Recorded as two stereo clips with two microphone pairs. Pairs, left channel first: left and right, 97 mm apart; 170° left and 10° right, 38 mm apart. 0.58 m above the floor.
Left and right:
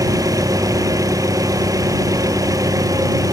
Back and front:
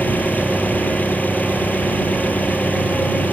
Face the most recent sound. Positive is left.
turn(degrees=-145)